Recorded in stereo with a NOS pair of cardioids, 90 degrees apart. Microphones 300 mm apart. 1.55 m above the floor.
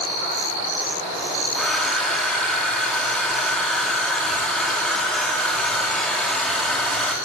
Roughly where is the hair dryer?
Ahead.